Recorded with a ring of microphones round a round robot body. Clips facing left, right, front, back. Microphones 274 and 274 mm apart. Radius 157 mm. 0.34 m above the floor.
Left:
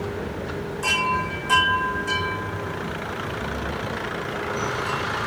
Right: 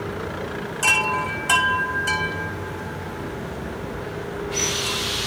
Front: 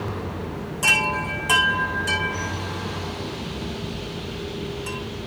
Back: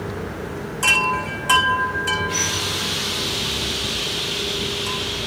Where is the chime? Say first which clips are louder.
Right 1 dB, back 1 dB; 100° right, 5 m.